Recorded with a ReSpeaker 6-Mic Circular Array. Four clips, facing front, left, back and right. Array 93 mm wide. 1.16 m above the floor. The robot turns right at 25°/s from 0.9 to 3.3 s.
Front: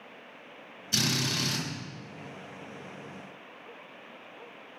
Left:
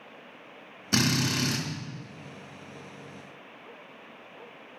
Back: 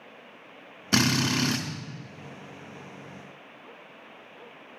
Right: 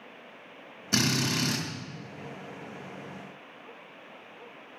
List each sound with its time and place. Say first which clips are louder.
0.9 s a drill: left 1 dB, back 7 dB; straight behind, 2 m; by 1.6 s 160° right, 2 m